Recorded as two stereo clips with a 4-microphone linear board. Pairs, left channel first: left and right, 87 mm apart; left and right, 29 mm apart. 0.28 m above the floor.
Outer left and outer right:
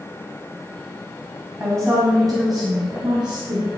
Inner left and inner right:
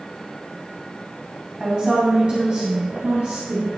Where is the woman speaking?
30° right (ahead or behind), 2.0 m; by 3.7 s 60° right (ahead or behind), 3.5 m.